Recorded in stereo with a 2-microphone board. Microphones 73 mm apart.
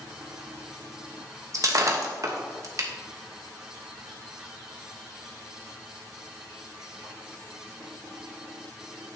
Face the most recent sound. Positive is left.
turn(degrees=-50)  # may be behind; listen again after turning